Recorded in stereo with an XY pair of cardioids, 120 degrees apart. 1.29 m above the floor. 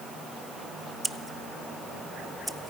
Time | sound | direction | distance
1.0 | scissors | 10° right | 0.9 m